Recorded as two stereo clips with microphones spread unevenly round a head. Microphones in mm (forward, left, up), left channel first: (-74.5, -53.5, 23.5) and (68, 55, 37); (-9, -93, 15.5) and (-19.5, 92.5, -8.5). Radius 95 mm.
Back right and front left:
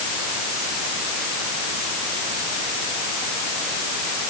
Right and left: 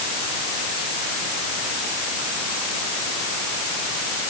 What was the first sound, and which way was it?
Only background noise.